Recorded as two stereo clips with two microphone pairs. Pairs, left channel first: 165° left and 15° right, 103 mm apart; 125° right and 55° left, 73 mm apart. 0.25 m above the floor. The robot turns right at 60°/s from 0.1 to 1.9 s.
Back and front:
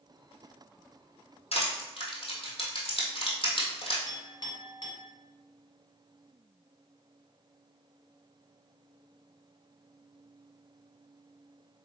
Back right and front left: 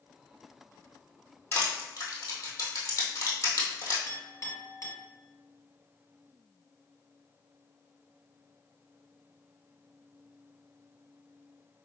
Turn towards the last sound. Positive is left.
turn(degrees=-160)